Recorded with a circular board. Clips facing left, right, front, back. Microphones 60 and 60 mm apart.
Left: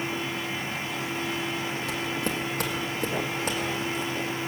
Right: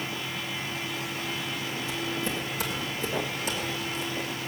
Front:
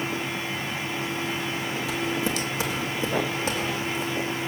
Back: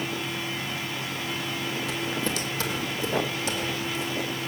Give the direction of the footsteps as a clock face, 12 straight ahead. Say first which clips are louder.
Even, front 4 dB; 9 o'clock.